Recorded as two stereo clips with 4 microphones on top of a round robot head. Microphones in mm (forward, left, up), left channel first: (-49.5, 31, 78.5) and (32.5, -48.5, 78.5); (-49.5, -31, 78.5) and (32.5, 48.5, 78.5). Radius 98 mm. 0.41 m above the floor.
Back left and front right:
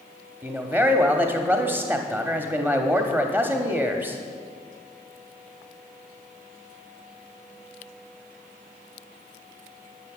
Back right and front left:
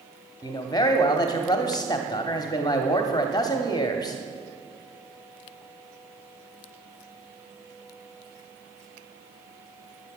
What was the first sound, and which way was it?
A man speaking, 110° right.